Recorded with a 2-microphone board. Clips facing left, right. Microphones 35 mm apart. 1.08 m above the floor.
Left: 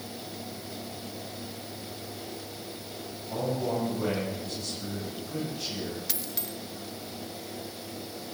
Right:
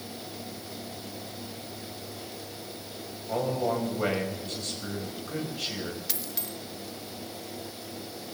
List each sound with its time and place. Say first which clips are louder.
3.3 s a man speaking: right 2 dB; 65° right (ahead or behind), 5 m
6.1 s a dropped coin: even; centre (ahead or behind), 1.0 m